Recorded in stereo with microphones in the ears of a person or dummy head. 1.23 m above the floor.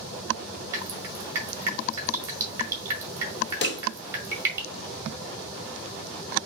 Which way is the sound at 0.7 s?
15° right (ahead or behind).